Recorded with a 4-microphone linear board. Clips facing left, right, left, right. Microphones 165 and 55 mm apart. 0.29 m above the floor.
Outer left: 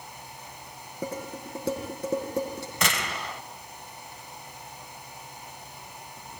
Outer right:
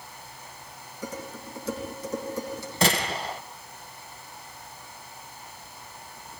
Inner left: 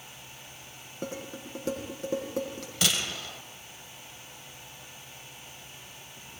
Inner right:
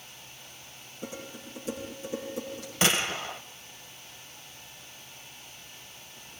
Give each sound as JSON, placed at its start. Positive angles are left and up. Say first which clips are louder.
{"t": 1.0, "sound": "dishes clattering", "louder": "outer left 3 dB, inner left 3 dB", "side_deg": 60, "distance_m": 10.0}
{"t": 2.8, "sound": "a gunshot", "louder": "outer right 6 dB, inner right 4 dB", "side_deg": -35, "distance_m": 1.5}